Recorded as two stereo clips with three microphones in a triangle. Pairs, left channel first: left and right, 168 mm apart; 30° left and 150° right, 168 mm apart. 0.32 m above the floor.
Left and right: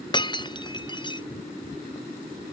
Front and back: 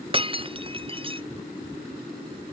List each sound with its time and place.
0.1 s breaking glass: 150° left